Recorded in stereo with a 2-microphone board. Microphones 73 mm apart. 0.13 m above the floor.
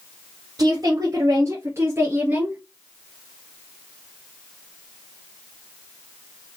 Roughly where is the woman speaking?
Right.